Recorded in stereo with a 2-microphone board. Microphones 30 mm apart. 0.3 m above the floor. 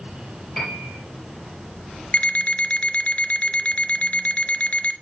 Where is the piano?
10° left (ahead or behind), 4 m.